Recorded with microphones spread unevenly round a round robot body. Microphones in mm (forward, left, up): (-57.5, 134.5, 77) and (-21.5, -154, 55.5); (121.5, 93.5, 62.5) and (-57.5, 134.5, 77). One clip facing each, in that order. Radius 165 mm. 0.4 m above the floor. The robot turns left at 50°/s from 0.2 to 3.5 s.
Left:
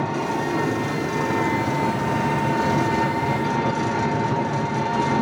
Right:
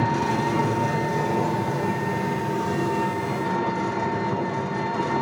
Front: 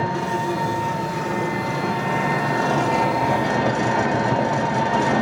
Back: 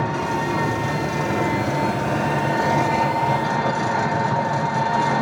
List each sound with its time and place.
0.0 s an engine running: 145° right, 1.8 m; by 5.2 s 50° left, 1.8 m